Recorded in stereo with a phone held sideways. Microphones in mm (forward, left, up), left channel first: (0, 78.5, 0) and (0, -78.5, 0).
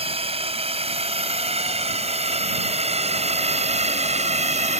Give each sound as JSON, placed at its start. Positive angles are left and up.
{"t": 0.0, "sound": "a drone", "side_deg": -40}